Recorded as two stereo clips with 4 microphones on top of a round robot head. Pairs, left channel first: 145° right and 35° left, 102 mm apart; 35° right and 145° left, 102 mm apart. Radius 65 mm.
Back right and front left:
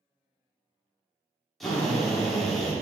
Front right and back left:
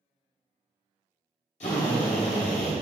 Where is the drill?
55° right, 1.9 m.